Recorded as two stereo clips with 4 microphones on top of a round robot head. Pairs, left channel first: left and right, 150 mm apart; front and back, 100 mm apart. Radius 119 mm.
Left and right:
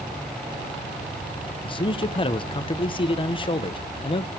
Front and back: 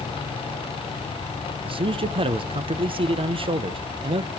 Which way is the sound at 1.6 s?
145° left.